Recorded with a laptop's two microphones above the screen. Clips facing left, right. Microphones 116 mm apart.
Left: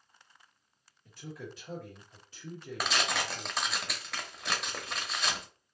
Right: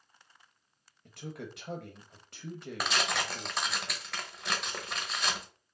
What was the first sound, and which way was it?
A man speaking, 65° right (ahead or behind).